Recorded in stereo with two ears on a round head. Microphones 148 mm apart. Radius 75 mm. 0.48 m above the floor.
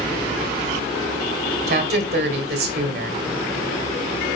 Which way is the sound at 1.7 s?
65° right (ahead or behind).